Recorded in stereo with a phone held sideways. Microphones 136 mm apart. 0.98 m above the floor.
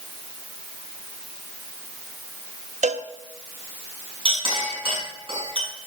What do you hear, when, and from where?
2.8 s a cowbell: 65° right (ahead or behind), 0.7 m
4.2 s a clink: 40° right (ahead or behind), 7 m